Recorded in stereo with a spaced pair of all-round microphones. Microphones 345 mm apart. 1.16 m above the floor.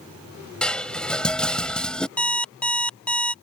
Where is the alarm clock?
5° left (ahead or behind).